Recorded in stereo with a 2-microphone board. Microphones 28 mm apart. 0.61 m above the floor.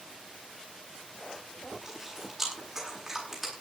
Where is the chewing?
5° right (ahead or behind), 9 m.